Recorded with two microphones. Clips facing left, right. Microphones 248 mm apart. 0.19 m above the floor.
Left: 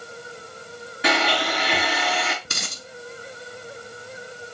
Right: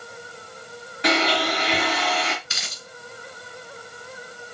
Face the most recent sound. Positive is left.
turn(degrees=55)  # may be behind; listen again after turning